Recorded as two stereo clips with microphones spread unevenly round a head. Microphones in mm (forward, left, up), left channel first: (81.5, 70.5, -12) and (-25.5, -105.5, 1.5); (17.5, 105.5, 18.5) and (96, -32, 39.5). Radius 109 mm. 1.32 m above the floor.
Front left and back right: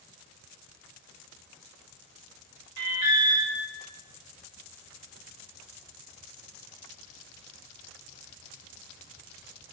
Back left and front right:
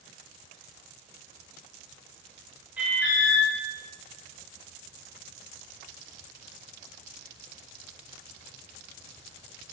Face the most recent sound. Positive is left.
turn(degrees=-145)